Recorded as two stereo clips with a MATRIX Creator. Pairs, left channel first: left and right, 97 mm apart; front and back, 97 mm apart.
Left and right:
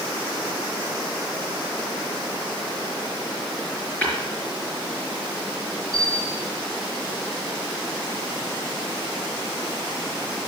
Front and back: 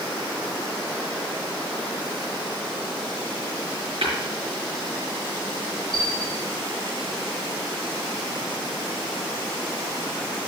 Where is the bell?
160° left, 6 m.